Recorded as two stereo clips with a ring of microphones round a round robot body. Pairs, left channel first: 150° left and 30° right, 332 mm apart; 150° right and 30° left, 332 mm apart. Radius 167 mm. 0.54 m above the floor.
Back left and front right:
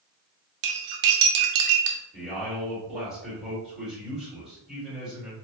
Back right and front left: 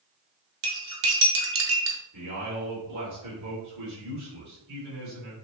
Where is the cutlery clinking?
20° right, 0.7 m.